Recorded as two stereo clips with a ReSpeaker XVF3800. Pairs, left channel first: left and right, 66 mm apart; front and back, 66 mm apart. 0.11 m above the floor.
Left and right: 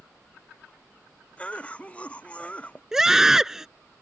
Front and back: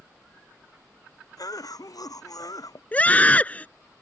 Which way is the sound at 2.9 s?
20° right.